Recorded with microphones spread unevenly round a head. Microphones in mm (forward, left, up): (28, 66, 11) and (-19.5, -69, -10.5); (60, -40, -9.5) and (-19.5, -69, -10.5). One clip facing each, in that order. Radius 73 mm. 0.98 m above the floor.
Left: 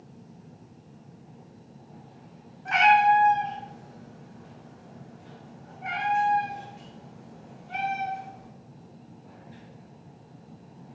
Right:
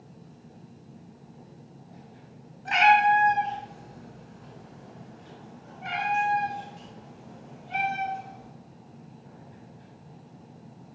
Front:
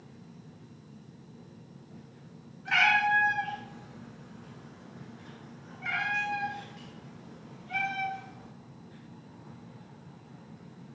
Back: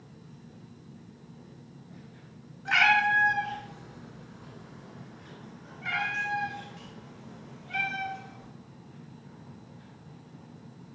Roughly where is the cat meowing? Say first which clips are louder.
Left 1 dB, back 2 dB; behind.